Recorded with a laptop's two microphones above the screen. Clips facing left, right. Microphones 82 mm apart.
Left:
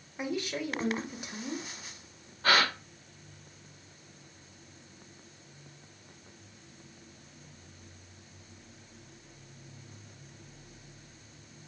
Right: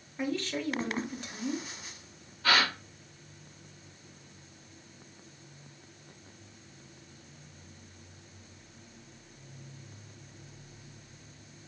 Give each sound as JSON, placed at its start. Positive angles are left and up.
{"t": 0.2, "sound": "a woman speaking", "side_deg": 15, "distance_m": 0.9}
{"t": 2.4, "sound": "a gasp", "side_deg": 45, "distance_m": 1.1}